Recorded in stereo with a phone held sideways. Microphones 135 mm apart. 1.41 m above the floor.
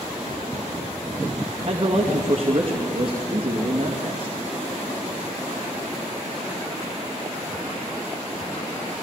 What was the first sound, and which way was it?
A man speaking, 40° right (ahead or behind).